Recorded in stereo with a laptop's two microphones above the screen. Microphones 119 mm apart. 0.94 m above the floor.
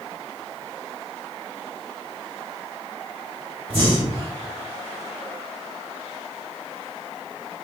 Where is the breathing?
50° right (ahead or behind), 2 m.